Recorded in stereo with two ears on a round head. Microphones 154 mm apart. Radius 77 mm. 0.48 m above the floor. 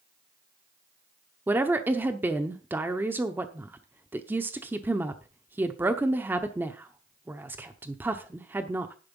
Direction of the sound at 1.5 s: 10° right (ahead or behind).